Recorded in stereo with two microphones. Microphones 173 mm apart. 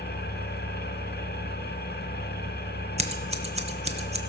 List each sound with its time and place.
0.0 s an engine running: 70° left (ahead or behind), 0.9 m
3.0 s scissors: 40° right (ahead or behind), 0.9 m